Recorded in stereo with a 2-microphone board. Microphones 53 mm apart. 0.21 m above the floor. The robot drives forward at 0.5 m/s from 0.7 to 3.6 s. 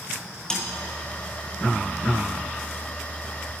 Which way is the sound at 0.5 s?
15° left (ahead or behind).